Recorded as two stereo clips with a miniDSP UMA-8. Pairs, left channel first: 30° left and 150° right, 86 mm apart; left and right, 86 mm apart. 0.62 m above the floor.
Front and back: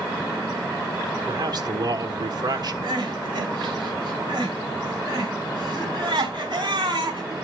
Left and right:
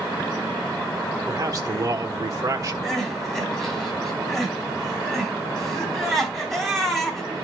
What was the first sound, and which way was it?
A man speaking, 135° right.